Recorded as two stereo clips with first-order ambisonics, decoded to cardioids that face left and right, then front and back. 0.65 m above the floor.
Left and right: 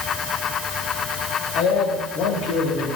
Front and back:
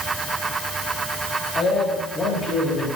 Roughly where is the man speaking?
Ahead left.